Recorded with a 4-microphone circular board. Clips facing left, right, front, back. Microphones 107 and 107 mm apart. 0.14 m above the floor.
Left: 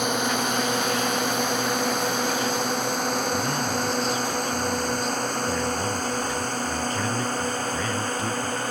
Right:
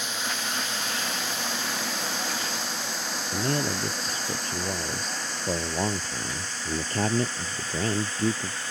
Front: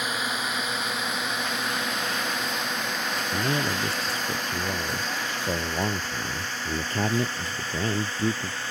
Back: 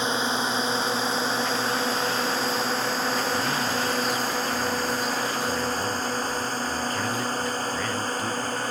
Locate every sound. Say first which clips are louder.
0.0 s a drone: left 9 dB, back 4 dB; 115° left; by 8.7 s 130° left
3.3 s a man speaking: left 2 dB, back 1 dB; 50° right